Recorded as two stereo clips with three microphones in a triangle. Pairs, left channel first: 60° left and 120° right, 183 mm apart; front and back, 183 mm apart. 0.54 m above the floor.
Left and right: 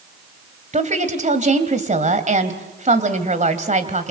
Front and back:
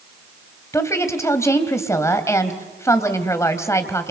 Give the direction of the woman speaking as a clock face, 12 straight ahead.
2 o'clock.